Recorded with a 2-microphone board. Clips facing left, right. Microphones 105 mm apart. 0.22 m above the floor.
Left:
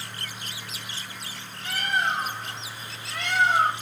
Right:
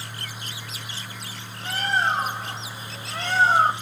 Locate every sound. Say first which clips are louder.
1.6 s a bird: right 3 dB; 35° right (ahead or behind), 0.7 m